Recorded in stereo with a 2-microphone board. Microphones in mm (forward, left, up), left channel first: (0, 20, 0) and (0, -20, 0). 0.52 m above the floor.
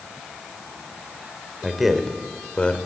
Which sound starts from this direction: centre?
A man speaking, at 1.6 s.